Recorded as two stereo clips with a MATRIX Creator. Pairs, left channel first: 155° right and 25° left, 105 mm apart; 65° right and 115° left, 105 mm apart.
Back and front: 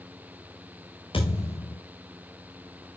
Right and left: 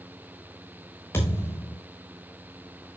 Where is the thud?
130° right, 8 m.